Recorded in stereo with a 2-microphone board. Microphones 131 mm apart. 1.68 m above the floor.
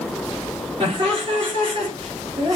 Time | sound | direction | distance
0.8 | laughter | 50° right (ahead or behind) | 4.5 m